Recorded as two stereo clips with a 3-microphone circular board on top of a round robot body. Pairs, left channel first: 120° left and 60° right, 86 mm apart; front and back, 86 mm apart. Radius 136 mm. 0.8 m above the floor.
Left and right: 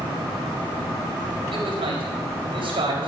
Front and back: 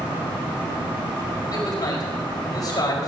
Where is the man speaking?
45° right, 4.5 m.